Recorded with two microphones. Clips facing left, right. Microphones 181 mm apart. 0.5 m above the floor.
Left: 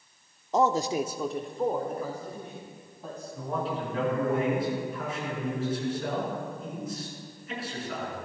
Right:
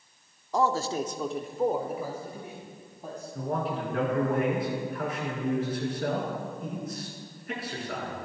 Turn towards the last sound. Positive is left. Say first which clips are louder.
# right 1 dB
turn(degrees=-60)  # may be behind; listen again after turning